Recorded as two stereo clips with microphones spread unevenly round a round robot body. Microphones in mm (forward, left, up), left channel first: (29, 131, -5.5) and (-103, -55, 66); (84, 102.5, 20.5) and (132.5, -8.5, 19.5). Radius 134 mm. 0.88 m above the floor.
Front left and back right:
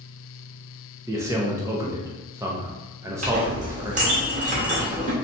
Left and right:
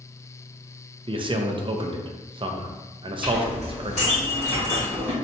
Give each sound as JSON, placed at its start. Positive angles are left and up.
{"t": 1.1, "sound": "a man speaking", "azimuth_deg": -35, "distance_m": 0.7}
{"t": 3.2, "sound": "a clink", "azimuth_deg": 175, "distance_m": 1.7}